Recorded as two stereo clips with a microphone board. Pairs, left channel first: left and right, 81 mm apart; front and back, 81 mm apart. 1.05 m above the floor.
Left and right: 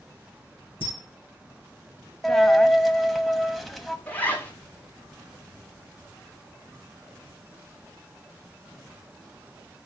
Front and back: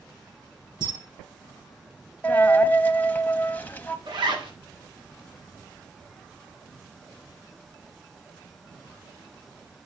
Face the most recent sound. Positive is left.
turn(degrees=160)